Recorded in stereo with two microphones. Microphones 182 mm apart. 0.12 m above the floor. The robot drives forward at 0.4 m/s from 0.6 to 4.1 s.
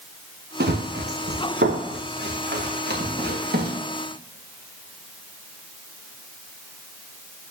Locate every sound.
0.6 s running footsteps: 65° right (ahead or behind), 1.7 m